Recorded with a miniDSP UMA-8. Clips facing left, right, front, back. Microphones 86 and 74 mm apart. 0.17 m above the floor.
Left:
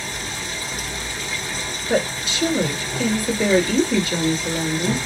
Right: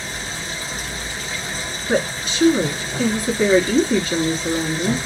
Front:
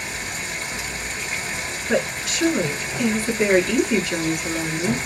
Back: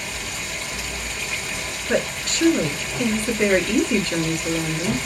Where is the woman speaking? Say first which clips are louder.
Right 1 dB, even; 80° right, 1.8 m.